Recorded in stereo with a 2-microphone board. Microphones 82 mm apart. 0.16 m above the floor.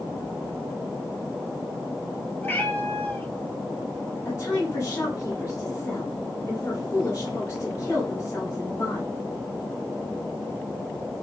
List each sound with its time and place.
2.4 s a cat meowing: 25° left (ahead or behind), 1.3 m
4.2 s a woman speaking: 40° left (ahead or behind), 2.5 m